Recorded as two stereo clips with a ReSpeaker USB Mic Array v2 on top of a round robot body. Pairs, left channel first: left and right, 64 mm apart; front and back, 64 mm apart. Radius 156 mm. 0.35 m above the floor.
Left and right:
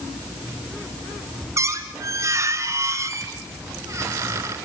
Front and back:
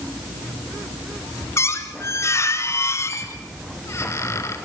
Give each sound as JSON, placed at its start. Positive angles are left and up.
{"t": 1.6, "sound": "a squeak", "azimuth_deg": -45, "distance_m": 2.5}